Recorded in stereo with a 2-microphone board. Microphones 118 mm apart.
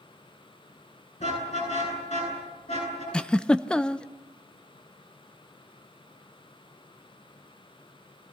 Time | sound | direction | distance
1.2 | a car horn | 75° left (ahead or behind) | 9.5 m
3.1 | a giggle | 5° left (ahead or behind) | 0.6 m